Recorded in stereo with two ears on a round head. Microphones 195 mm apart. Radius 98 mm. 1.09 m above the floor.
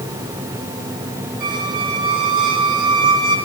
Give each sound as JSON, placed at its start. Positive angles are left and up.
{"t": 1.4, "sound": "a squeak", "side_deg": -25, "distance_m": 4.5}